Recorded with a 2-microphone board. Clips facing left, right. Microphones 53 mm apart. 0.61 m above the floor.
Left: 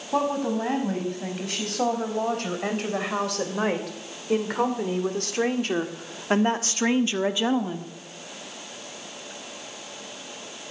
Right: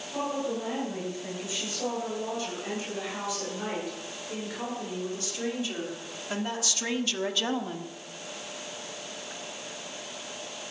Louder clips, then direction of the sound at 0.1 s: Left 6 dB; 70° left (ahead or behind).